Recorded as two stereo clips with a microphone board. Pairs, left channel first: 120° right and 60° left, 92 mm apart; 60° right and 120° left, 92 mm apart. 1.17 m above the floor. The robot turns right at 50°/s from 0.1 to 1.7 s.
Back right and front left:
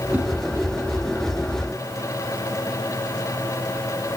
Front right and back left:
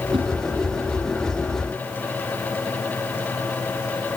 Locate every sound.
0.1 s a whoosh: 130° left, 4 m; by 0.3 s 135° left, 4 m